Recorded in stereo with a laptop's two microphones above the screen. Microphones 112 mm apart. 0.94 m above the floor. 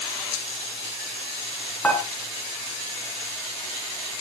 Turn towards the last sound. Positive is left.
turn(degrees=15)  # may be behind; listen again after turning